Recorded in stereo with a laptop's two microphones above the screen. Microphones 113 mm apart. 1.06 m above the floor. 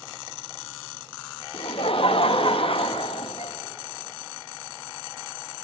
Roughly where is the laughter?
Left.